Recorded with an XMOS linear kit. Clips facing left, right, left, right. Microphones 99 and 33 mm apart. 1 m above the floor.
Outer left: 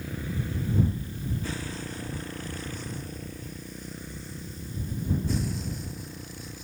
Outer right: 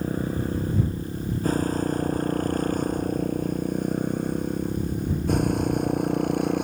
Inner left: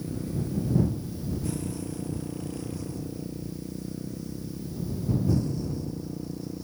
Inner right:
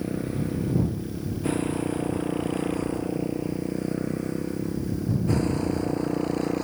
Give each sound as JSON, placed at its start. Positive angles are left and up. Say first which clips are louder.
{"t": 0.0, "sound": "a motorcycle", "louder": "outer right 8 dB, inner right 4 dB", "side_deg": -45}